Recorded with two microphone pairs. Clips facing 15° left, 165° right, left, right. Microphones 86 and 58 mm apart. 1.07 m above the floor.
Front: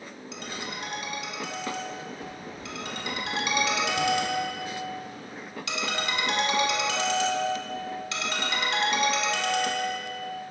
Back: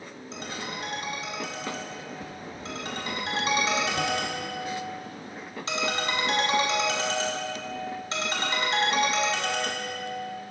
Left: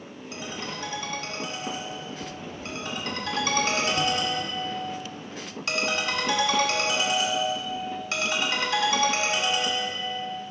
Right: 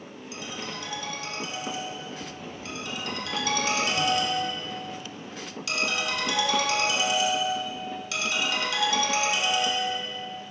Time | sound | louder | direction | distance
0.3 | a ringtone | back 1 dB, left 2 dB | 140° left | 1.2 m